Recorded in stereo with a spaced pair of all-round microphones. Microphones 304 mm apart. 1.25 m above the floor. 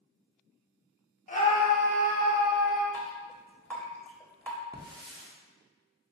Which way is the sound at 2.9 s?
5° left (ahead or behind).